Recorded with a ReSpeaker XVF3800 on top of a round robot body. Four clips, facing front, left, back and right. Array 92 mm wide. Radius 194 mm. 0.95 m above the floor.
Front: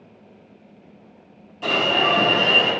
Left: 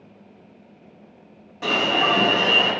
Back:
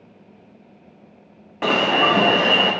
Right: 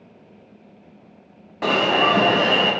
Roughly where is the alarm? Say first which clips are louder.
Right 3 dB, back 3 dB; behind right.